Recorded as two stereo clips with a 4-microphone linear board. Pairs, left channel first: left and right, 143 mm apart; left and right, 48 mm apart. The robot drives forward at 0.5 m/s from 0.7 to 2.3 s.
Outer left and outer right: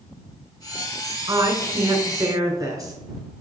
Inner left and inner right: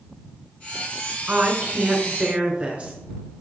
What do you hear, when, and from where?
1.3 s a woman speaking: 30° right (ahead or behind), 1.6 m; by 2.9 s 25° right (ahead or behind), 1.8 m